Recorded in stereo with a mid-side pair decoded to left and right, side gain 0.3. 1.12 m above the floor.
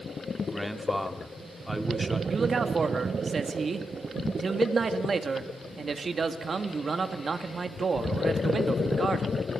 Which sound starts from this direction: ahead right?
A man speaking, at 2.3 s.